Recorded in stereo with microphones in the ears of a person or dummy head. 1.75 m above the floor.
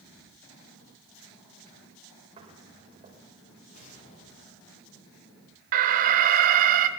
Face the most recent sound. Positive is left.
turn(degrees=-45)  # may be behind; listen again after turning